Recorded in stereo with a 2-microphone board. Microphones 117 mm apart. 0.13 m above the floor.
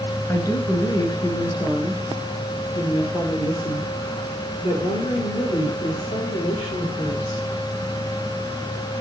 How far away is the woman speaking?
About 1.9 m.